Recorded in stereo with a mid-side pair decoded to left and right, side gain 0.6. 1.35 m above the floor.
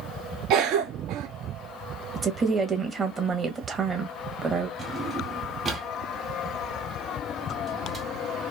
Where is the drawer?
30° right, 2 m.